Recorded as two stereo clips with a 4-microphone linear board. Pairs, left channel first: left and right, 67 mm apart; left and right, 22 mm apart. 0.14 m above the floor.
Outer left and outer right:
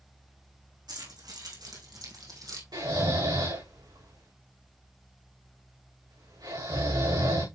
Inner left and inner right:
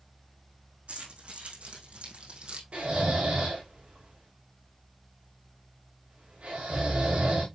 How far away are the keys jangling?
About 5 m.